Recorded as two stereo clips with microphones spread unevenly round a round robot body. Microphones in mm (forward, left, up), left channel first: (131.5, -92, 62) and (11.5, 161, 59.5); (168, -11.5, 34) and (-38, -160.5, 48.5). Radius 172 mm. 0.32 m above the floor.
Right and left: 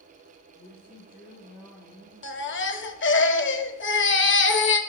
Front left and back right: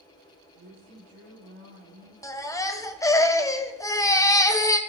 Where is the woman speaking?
140° right, 7.5 m.